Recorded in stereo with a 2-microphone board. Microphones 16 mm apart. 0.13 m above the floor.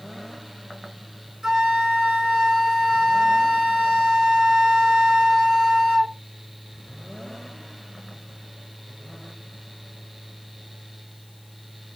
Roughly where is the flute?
Right.